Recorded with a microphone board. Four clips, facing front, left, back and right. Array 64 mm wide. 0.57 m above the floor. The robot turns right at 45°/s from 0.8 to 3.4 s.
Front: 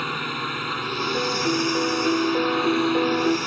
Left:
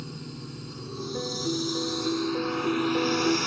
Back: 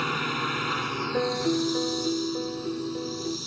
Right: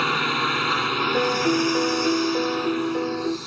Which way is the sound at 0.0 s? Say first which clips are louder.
Right 18 dB, even; 90° right.